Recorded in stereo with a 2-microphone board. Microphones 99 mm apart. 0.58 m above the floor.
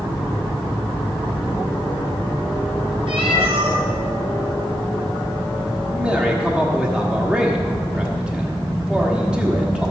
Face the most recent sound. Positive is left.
turn(degrees=-10)  # may be behind; listen again after turning